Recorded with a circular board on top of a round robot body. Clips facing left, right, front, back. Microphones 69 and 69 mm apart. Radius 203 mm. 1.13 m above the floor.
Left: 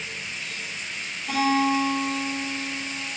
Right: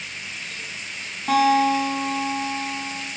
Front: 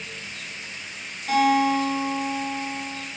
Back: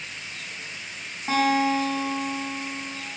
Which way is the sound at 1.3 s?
115° right.